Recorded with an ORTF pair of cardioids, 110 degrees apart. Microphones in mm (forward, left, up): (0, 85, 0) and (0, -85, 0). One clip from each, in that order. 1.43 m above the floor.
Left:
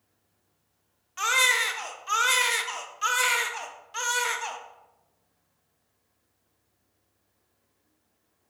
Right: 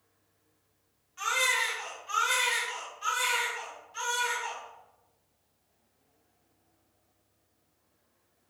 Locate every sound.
1.2 s a baby crying: 55° left, 0.6 m